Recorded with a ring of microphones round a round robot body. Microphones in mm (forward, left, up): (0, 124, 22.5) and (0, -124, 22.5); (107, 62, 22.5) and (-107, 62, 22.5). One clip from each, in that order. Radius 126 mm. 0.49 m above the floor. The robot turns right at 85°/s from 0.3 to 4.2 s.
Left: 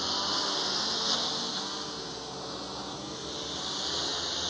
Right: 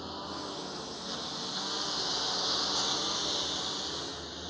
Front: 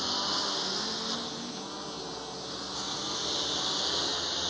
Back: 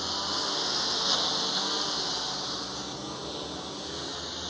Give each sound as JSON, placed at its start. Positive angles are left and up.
{"t": 0.0, "sound": "a lawn mower", "azimuth_deg": 70}